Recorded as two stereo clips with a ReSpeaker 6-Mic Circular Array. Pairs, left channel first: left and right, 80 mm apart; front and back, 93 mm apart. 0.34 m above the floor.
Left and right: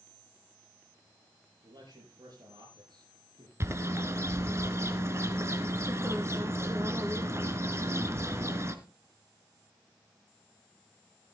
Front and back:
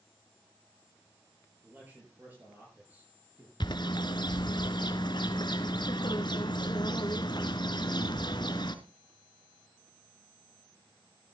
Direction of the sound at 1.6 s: 110° right.